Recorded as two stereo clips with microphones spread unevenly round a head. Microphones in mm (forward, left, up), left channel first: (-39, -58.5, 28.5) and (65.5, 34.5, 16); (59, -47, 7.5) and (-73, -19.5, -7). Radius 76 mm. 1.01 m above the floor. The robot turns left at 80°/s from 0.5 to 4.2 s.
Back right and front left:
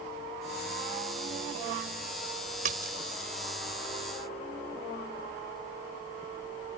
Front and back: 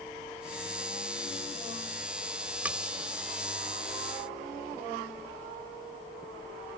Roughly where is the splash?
Left.